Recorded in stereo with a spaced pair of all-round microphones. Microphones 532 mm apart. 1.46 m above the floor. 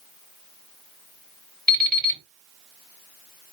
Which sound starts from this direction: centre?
An alarm clock, at 1.7 s.